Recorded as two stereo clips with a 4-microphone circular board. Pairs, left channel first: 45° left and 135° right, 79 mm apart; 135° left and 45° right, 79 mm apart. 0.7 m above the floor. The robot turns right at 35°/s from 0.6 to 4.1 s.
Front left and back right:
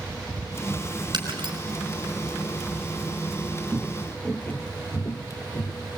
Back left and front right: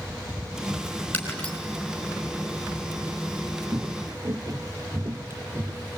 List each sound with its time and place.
1.1 s breaking glass: 155° right, 5 m; by 1.6 s 140° right, 5 m
3.7 s footsteps: 70° right, 0.8 m; by 6.0 s 15° left, 1.8 m